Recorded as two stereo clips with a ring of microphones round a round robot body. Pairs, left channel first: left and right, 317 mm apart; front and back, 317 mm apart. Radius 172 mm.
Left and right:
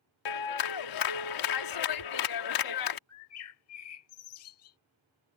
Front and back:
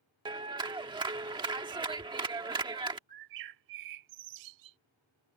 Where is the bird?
140° left.